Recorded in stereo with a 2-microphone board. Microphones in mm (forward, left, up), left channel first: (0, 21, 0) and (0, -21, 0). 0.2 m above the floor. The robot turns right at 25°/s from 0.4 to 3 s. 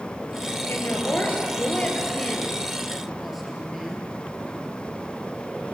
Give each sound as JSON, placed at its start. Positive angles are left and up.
{"t": 0.7, "sound": "a woman speaking", "azimuth_deg": 125, "distance_m": 5.0}